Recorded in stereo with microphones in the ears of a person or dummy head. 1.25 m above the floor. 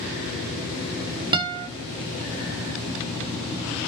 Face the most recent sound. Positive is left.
turn(degrees=-25)  # may be behind; listen again after turning